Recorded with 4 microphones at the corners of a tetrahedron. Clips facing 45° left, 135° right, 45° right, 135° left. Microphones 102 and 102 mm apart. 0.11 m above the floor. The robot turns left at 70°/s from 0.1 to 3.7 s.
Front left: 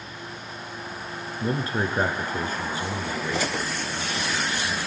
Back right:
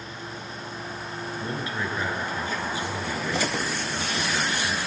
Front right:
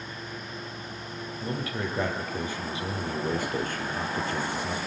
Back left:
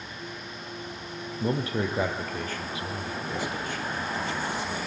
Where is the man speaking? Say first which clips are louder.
Front left 6 dB, back left 5 dB; 100° left, 2.0 m; by 4.8 s 60° right, 2.0 m.